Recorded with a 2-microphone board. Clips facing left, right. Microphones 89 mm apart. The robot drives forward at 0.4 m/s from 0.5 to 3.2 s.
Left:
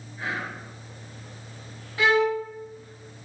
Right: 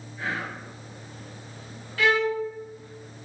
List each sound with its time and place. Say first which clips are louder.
0.2 s whispering: even; 15° left (ahead or behind), 1.6 m
2.0 s a violin: left 2 dB; 20° left (ahead or behind), 0.6 m; by 2.4 s 15° left (ahead or behind), 0.7 m